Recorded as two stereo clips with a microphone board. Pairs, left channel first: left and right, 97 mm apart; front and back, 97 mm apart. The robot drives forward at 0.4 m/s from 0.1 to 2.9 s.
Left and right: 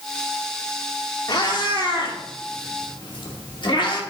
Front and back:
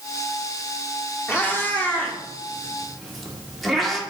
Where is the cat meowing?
60° left, 1.7 m; by 4.0 s 90° left, 1.6 m.